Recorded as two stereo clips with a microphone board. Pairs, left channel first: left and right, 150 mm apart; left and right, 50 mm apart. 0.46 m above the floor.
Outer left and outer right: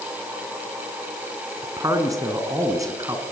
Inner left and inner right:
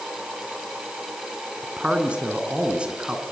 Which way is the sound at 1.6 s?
20° right (ahead or behind).